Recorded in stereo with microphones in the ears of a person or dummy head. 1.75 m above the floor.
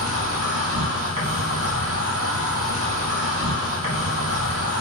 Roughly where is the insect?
Right.